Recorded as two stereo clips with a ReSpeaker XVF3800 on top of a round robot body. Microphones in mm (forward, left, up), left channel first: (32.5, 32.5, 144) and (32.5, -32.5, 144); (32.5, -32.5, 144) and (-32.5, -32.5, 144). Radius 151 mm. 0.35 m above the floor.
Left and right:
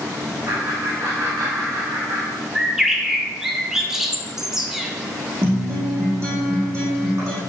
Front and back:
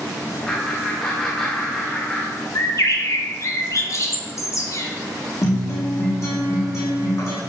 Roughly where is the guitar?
Ahead right.